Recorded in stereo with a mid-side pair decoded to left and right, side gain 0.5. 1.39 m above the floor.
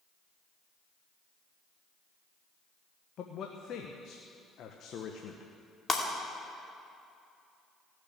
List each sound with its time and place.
3.2 s a man speaking: 60° left, 1.1 m
5.9 s breaking glass: 30° left, 2.5 m